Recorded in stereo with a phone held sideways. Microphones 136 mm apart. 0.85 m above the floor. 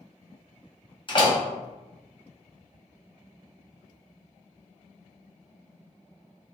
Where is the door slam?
35° left (ahead or behind), 0.8 m.